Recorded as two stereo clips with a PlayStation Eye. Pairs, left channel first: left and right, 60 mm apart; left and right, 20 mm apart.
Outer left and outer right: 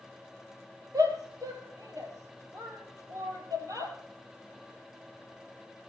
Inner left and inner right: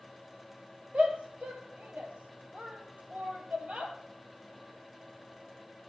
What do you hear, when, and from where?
0.9 s a shout: 80° right, 5.5 m